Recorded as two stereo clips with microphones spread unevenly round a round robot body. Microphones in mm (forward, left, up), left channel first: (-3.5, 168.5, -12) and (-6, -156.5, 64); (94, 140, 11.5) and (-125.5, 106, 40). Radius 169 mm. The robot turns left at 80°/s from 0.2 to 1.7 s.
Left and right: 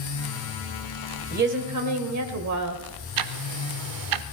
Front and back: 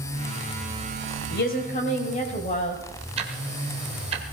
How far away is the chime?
No chime in this recording.